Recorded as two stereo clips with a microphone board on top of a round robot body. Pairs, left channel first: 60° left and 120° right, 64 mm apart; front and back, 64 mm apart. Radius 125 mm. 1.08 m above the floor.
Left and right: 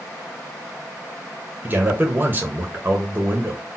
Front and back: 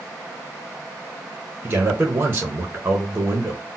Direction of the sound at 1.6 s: 155° right.